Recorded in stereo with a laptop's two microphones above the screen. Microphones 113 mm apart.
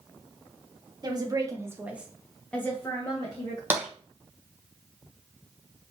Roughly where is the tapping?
Centre.